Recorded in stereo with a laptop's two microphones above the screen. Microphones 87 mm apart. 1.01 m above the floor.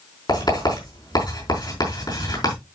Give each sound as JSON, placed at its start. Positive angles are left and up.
{"t": 0.3, "sound": "writing", "side_deg": 50, "distance_m": 5.0}